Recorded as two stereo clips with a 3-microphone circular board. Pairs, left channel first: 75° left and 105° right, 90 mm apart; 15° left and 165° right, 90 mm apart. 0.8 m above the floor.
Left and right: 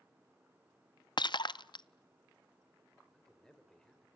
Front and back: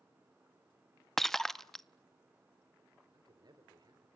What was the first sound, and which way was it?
Breaking glass, 100° left.